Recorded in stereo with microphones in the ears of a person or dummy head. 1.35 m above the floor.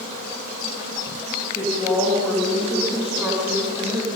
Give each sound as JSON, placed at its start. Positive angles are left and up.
{"t": 1.6, "sound": "a woman speaking", "side_deg": 15, "distance_m": 2.0}